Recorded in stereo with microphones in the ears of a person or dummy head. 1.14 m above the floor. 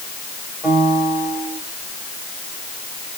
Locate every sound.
0.6 s a piano: 5° left (ahead or behind), 2.5 m